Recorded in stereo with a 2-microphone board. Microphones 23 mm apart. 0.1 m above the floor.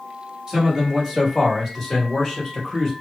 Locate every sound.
0.5 s a man speaking: 25° right (ahead or behind), 1.8 m; by 2.9 s 20° left (ahead or behind), 1.8 m